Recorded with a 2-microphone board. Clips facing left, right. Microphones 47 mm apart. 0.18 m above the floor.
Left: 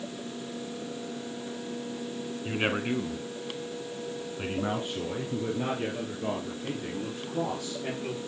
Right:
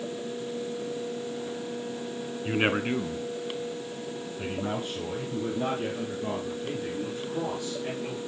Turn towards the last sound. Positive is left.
turn(degrees=25)  # may be behind; listen again after turning